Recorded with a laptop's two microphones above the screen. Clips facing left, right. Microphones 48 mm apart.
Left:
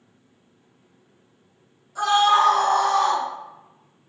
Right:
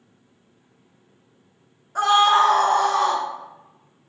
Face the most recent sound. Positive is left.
turn(degrees=-15)  # may be behind; listen again after turning